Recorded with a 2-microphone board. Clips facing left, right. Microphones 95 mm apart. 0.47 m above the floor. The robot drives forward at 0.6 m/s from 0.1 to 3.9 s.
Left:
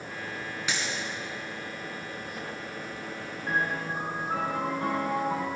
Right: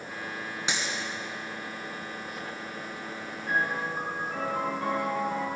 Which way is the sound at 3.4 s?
70° left (ahead or behind).